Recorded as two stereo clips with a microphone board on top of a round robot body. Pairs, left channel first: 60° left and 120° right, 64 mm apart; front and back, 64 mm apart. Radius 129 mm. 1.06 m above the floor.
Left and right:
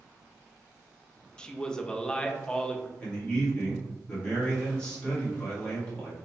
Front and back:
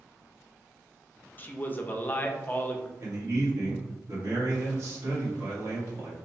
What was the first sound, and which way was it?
A man speaking, straight ahead.